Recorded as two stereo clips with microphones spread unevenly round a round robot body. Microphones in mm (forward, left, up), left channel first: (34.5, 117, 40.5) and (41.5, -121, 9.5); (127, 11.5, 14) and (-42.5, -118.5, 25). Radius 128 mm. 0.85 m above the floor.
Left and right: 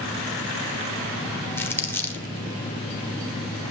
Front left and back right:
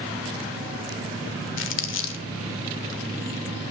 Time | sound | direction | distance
1.6 | crumpling | 10° left | 1.6 m